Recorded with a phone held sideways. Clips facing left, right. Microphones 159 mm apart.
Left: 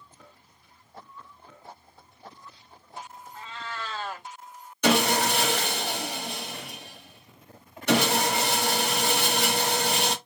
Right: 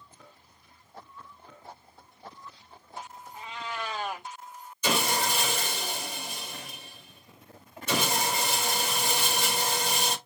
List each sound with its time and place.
3.3 s a cat meowing: 15° right (ahead or behind), 0.6 m
4.8 s sawing: 70° left (ahead or behind), 0.8 m